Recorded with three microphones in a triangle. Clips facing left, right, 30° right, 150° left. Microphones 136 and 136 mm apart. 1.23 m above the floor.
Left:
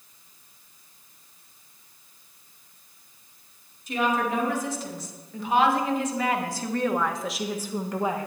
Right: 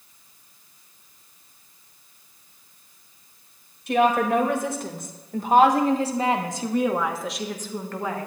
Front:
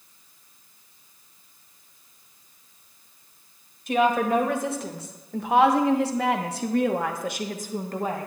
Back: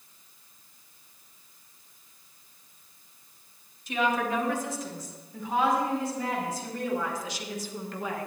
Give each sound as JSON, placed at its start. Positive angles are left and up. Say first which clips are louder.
{"t": 3.9, "sound": "a woman speaking", "louder": "right 6 dB, front 6 dB", "azimuth_deg": -65, "distance_m": 1.9}